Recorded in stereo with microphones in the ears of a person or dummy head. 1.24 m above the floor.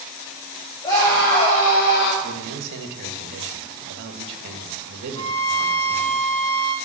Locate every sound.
0.8 s a scream: 20° left (ahead or behind), 2.0 m; by 2.1 s 60° left (ahead or behind), 1.2 m
2.2 s a man speaking: 60° right (ahead or behind), 1.5 m
5.2 s a violin: 20° left (ahead or behind), 5.5 m